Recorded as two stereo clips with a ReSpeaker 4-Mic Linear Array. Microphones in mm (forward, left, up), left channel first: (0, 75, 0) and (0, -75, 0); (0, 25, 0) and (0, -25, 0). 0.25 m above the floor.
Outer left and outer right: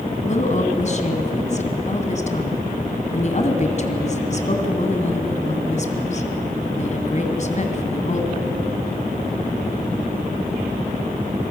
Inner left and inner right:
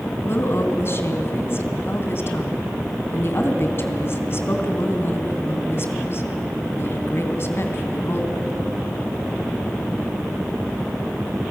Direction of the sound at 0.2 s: 50° left (ahead or behind).